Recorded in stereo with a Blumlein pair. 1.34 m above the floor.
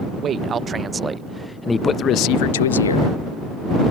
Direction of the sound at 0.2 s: 25° right.